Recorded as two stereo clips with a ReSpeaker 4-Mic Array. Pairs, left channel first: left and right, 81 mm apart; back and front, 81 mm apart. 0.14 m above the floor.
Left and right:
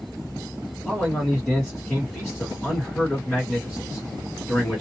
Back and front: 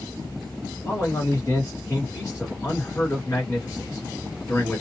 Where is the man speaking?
160° left, 1.6 m.